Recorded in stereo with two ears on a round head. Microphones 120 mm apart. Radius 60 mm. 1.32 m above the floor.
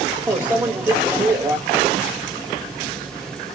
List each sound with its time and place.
0.3 s a microwave: 10° right (ahead or behind), 1.5 m